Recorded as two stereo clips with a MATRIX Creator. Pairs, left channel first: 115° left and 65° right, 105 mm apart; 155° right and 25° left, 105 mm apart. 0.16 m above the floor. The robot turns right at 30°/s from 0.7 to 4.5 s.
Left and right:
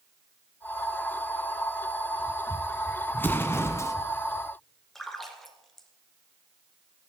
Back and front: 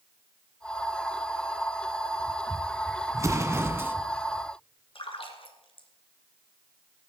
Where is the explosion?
55° left, 1.1 m; by 4.0 s 80° left, 1.1 m.